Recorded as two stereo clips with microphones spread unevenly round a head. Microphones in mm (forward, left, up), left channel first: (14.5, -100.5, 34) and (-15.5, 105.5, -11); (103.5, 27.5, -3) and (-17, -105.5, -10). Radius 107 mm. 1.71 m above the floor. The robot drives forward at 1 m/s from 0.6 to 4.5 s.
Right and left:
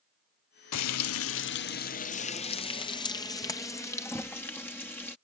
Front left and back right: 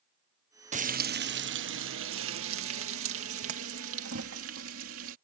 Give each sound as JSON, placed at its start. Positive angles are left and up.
{"t": 0.7, "sound": "frying", "azimuth_deg": -80}